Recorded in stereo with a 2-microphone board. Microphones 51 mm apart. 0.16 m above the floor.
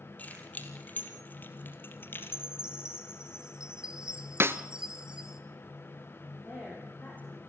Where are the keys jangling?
30° left (ahead or behind), 3.5 m; by 2.4 s 45° left (ahead or behind), 2.5 m.